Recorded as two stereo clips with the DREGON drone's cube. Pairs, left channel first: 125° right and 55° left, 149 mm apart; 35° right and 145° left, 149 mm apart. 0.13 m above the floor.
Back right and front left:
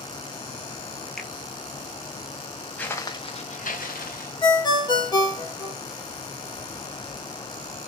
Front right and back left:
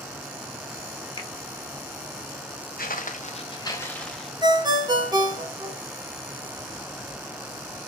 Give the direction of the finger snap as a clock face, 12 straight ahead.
1 o'clock.